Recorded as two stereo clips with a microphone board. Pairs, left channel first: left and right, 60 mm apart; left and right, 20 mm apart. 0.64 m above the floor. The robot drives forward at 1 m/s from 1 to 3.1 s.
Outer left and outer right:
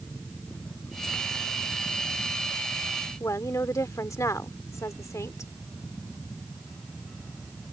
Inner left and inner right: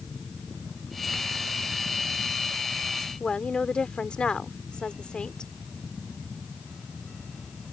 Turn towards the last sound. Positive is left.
turn(degrees=60)  # may be behind; listen again after turning